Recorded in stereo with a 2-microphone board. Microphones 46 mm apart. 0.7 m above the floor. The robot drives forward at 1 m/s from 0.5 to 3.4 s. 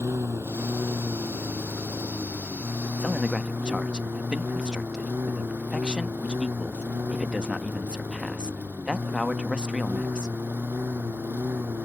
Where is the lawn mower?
75° right (ahead or behind); by 11.9 s 50° right (ahead or behind).